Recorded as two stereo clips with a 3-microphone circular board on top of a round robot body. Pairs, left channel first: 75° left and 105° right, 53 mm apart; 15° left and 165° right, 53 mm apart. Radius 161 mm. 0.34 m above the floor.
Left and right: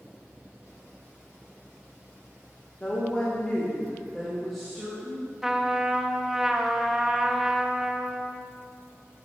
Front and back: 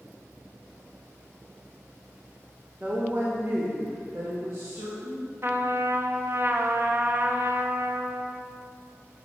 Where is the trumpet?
175° left, 0.8 m.